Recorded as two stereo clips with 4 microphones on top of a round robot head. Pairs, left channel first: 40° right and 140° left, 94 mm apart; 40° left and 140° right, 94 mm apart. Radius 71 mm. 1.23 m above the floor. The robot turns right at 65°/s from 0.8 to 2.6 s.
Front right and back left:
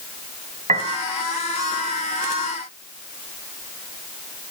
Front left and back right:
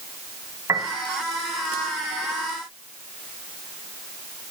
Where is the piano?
160° left, 1.9 m; by 1.0 s 175° left, 1.9 m.